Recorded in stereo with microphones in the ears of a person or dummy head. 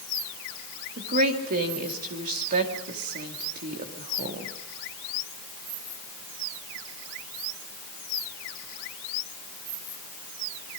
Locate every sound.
1.0 s a woman speaking: 40° right (ahead or behind), 2.5 m